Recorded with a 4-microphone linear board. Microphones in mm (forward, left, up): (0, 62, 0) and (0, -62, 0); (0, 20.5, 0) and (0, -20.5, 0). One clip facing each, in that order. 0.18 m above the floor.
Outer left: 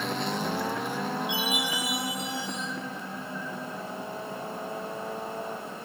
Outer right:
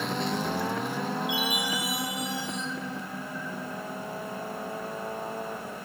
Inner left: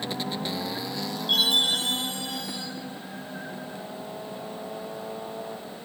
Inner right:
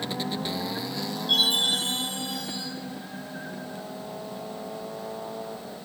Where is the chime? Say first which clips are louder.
Even, inner left 1 dB; 25° left (ahead or behind), 4 m.